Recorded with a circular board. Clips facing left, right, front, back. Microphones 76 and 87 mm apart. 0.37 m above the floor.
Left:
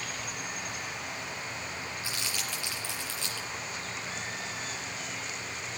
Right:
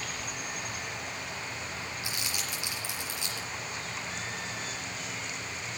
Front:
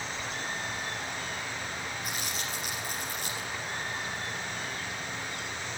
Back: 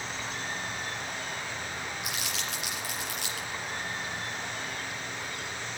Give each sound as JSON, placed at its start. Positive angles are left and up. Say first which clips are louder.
{"t": 2.0, "sound": "crumpling", "louder": "even, even", "azimuth_deg": -165, "distance_m": 5.0}